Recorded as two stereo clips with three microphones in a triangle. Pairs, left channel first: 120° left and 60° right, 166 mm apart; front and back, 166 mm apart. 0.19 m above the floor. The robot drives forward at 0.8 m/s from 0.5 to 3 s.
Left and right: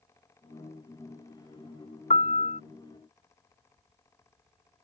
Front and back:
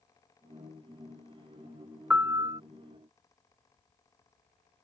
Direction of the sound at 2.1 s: 100° left.